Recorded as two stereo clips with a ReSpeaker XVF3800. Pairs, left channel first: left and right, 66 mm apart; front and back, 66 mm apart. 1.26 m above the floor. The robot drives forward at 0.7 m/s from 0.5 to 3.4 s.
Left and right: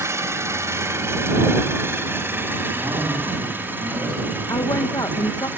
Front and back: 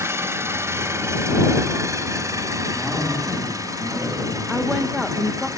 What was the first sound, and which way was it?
An engine running, 135° right.